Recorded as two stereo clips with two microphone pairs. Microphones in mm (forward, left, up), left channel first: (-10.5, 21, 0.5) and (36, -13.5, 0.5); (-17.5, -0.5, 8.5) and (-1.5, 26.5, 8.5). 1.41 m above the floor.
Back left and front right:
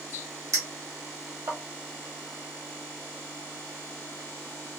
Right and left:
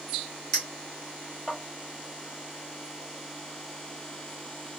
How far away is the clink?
About 1.5 m.